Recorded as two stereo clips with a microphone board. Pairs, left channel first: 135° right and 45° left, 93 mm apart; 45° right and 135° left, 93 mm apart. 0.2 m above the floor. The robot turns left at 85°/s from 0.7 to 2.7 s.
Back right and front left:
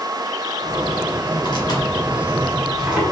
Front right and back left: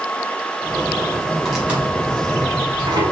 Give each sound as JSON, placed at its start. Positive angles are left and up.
{"t": 1.4, "sound": "tearing paper", "azimuth_deg": -130, "distance_m": 1.4}